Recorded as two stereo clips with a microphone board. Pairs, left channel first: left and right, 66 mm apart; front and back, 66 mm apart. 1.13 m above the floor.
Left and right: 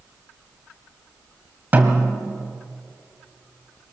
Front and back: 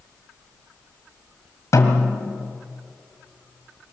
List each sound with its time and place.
1.7 s a snare drum: 30° right, 2.5 m